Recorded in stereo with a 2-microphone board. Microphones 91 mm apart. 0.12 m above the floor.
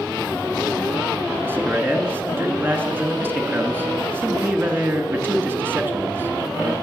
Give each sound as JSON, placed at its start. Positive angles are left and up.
{"t": 1.4, "sound": "a man speaking", "side_deg": -25, "distance_m": 1.2}